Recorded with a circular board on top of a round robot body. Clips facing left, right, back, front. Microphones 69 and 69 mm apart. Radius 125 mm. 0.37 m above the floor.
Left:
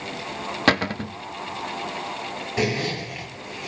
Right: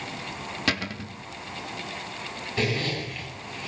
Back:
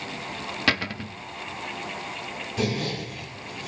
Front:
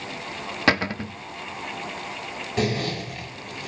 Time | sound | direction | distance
0.7 | a cupboard door | 60° left | 0.7 m
2.6 | a zipper | 15° left | 9.5 m